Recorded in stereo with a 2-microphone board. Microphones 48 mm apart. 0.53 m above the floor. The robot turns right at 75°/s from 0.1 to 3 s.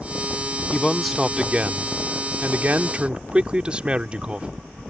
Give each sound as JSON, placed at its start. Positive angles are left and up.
{"t": 0.7, "sound": "a man speaking", "azimuth_deg": 150}